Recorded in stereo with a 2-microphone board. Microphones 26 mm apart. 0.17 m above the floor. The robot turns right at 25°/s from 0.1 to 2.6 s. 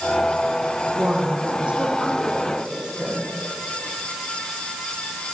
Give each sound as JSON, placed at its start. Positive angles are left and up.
{"t": 0.9, "sound": "a woman speaking", "azimuth_deg": -70, "distance_m": 9.5}